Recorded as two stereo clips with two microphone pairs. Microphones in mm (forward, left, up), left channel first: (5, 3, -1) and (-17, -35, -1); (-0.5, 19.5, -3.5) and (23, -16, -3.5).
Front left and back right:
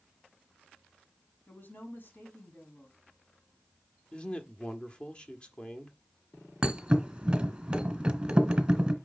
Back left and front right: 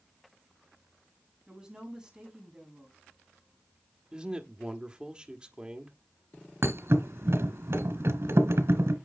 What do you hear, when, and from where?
1.5 s a woman speaking: 20° left, 4.5 m
4.1 s a man speaking: straight ahead, 1.3 m
6.6 s a thud: 50° right, 1.6 m